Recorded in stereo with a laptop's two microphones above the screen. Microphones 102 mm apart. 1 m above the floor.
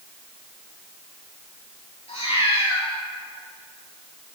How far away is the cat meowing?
About 5 m.